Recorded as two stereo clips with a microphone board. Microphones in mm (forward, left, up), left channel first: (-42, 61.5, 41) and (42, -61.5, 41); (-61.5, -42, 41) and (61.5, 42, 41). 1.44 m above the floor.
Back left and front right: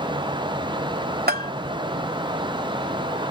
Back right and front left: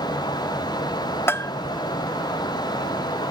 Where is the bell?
70° right.